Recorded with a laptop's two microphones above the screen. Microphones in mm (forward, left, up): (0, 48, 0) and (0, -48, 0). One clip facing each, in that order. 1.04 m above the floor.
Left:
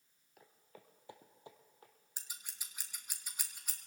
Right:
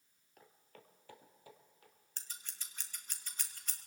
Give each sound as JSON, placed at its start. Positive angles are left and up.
{"t": 0.4, "sound": "footsteps", "side_deg": 5, "distance_m": 1.2}
{"t": 2.2, "sound": "scissors", "side_deg": 10, "distance_m": 0.8}